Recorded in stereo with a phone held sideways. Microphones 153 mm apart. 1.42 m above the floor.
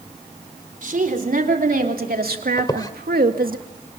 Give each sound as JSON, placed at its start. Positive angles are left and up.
{"t": 0.8, "sound": "a woman speaking", "side_deg": -65, "distance_m": 4.5}
{"t": 2.6, "sound": "a squeak", "side_deg": 25, "distance_m": 1.3}